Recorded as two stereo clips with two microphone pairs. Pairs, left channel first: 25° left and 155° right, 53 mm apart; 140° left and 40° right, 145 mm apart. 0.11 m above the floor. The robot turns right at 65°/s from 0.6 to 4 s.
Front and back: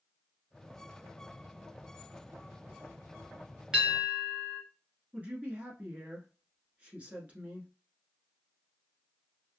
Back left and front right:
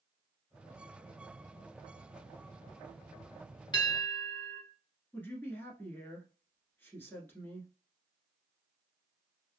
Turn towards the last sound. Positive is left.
turn(degrees=-160)